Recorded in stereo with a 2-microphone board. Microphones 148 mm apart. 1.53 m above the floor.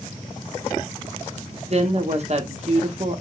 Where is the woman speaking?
45° right (ahead or behind), 0.7 m.